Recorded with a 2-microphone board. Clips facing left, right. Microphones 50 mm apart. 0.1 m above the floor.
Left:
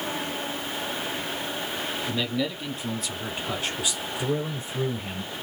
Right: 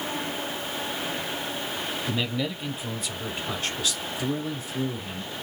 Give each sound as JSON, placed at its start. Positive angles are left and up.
{"t": 2.1, "sound": "a man speaking", "side_deg": -10, "distance_m": 2.5}